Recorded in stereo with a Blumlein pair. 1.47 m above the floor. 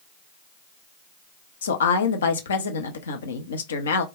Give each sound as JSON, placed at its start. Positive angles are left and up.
{"t": 1.6, "sound": "a woman speaking", "azimuth_deg": 65, "distance_m": 0.6}